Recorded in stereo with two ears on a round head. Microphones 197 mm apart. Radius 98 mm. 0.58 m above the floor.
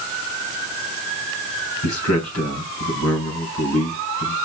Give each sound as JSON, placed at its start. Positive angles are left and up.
{"t": 1.8, "sound": "a man speaking", "side_deg": 75, "distance_m": 3.0}